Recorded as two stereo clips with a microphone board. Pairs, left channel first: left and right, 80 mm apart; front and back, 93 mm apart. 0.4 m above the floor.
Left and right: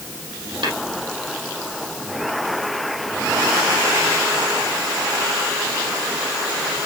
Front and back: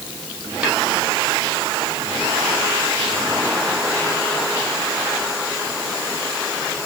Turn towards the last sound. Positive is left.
turn(degrees=-105)